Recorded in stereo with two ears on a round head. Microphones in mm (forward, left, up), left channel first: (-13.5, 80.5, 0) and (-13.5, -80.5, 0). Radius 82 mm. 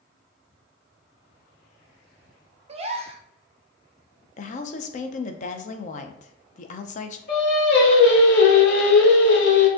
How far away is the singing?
About 1.6 m.